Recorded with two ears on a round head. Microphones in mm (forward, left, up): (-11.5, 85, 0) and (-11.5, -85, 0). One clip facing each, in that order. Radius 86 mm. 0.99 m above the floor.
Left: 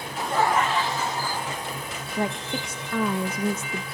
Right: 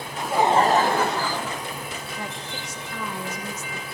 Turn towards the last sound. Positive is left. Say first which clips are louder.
# left 6 dB
turn(degrees=45)  # may be behind; listen again after turning